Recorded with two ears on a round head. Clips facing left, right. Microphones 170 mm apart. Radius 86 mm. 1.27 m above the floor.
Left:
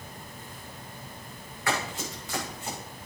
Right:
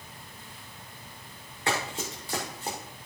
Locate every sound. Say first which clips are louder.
1.7 s running footsteps: even; 25° right (ahead or behind), 6.5 m; by 2.8 s 35° right (ahead or behind), 6 m